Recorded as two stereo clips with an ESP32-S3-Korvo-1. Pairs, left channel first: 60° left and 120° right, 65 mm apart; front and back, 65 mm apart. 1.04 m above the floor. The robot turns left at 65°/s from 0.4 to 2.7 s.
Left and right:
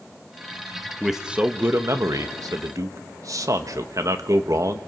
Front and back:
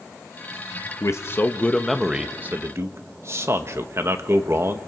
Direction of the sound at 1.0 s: 30° right.